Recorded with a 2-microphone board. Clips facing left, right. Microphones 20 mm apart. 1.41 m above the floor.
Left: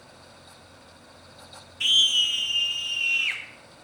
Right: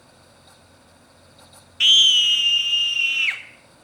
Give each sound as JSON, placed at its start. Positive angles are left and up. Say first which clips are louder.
{"t": 1.8, "sound": "a scream", "louder": "right 6 dB", "side_deg": -60, "distance_m": 0.7}